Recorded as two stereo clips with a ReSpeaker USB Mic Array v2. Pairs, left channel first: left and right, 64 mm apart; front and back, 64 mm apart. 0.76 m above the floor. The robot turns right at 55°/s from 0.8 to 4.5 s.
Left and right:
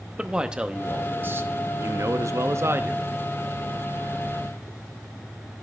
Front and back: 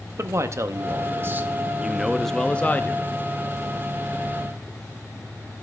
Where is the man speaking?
160° right, 0.6 m; by 3.1 s 35° right, 0.6 m.